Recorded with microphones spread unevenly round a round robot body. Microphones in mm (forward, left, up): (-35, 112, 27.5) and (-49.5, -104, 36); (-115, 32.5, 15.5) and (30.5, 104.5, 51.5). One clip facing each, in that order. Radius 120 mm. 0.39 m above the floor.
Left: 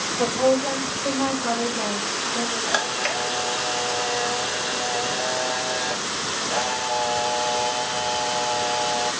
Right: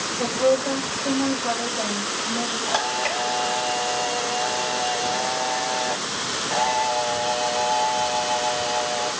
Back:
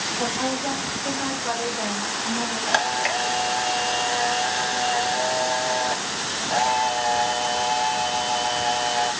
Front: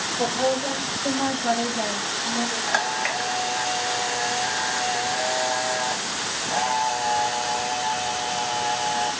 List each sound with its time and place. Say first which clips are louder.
0.2 s a woman speaking: even, front 4 dB; 65° left, 2.5 m; by 2.6 s 50° left, 3.5 m
2.7 s a camera shutter: right 1 dB, back 2 dB; 160° left, 1.2 m